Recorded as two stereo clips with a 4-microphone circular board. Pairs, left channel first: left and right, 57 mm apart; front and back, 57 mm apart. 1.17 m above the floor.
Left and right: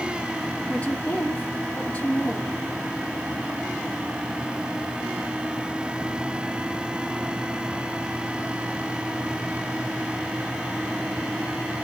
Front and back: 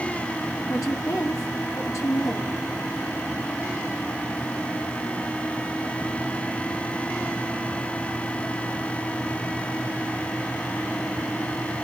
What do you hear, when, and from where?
0.7 s a woman speaking: 25° left, 3.5 m